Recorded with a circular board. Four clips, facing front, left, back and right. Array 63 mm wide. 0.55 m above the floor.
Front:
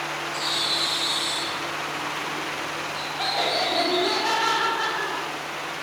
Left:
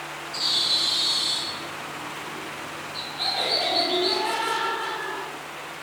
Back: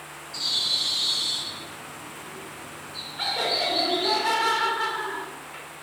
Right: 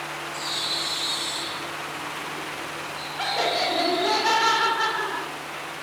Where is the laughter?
60° right, 1.4 m.